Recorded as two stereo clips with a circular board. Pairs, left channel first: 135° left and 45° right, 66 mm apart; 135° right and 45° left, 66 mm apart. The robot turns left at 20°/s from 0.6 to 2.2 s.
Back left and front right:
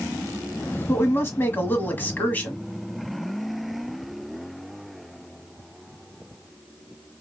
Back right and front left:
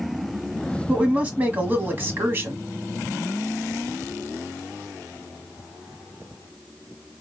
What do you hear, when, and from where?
0.9 s a woman speaking: 110° left, 1.3 m; by 2.6 s 85° left, 1.3 m